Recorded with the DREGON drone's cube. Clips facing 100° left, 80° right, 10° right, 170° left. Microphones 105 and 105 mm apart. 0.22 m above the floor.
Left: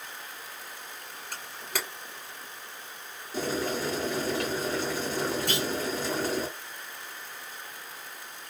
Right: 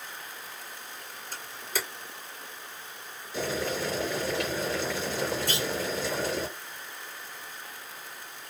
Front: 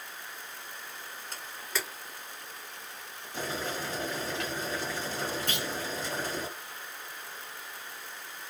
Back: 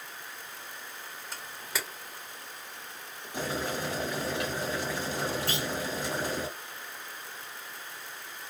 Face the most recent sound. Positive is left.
turn(degrees=120)